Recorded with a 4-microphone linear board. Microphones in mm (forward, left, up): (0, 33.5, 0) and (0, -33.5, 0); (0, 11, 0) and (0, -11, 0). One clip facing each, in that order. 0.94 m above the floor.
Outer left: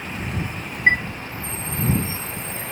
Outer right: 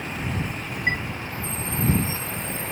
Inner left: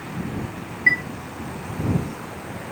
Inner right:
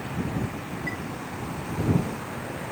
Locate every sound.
0.9 s a chime: 70° left (ahead or behind)